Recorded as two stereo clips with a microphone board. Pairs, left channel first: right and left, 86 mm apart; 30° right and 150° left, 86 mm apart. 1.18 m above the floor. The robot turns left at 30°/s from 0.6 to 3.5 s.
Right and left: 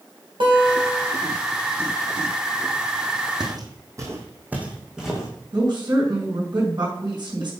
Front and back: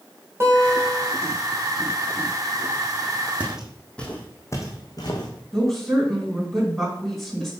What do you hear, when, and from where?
0.4 s a guitar: 90° left, 3 m; by 1.1 s 75° left, 3 m
3.4 s footsteps: 80° left, 2 m; by 5.3 s straight ahead, 3 m
5.5 s a woman speaking: 60° left, 5 m